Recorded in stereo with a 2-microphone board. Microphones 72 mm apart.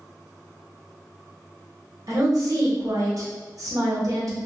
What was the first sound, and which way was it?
A woman speaking, 50° right (ahead or behind).